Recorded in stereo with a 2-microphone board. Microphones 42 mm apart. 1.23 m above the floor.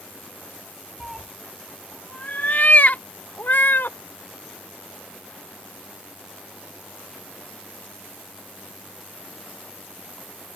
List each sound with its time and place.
1.0 s a cat meowing: 10° right (ahead or behind); by 4.0 s 65° left (ahead or behind)